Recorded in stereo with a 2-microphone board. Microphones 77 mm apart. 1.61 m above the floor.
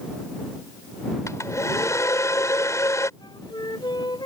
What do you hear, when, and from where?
1.3 s a hair dryer: 40° left (ahead or behind)
3.2 s a flute: 75° left (ahead or behind)